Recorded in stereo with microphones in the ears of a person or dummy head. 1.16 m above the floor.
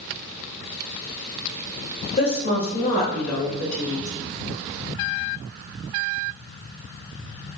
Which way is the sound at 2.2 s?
40° left (ahead or behind).